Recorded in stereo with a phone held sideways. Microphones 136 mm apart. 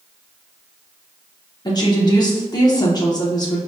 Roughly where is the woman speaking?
Left.